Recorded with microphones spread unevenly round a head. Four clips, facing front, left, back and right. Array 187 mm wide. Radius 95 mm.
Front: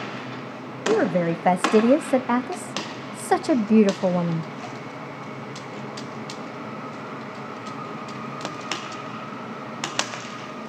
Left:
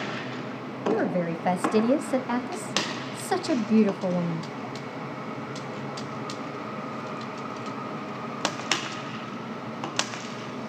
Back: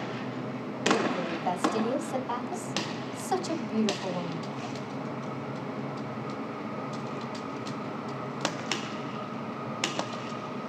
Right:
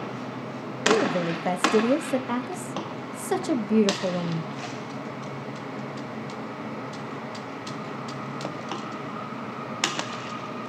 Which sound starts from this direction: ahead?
A woman speaking, at 0.9 s.